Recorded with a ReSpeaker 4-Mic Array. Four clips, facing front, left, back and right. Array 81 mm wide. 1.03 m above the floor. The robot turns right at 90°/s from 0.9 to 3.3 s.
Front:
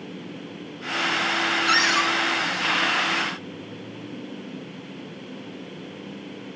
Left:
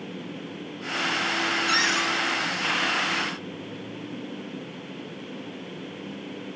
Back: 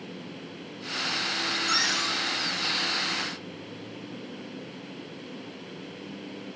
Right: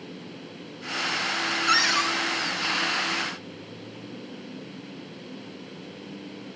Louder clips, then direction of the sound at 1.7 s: Right 5 dB, front 9 dB; 55° right.